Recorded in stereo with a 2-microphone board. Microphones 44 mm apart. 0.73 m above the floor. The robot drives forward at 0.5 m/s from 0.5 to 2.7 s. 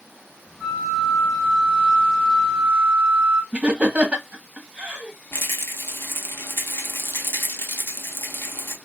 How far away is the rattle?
About 0.7 m.